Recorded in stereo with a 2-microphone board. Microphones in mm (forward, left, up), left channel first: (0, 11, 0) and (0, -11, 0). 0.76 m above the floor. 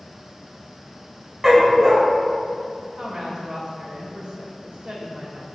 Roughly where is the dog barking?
Centre.